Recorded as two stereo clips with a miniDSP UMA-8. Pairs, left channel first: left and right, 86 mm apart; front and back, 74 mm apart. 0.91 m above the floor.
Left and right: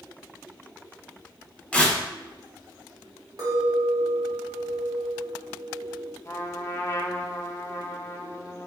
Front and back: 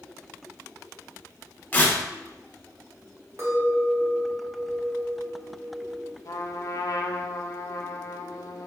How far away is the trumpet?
About 0.5 m.